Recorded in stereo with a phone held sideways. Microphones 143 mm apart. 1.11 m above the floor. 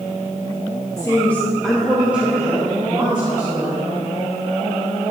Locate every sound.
1.0 s a woman speaking: 25° left (ahead or behind), 1.2 m; by 3.8 s 40° right (ahead or behind), 1.8 m